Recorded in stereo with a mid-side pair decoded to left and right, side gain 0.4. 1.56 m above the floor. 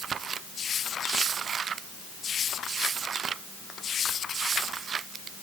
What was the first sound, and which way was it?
Only background noise.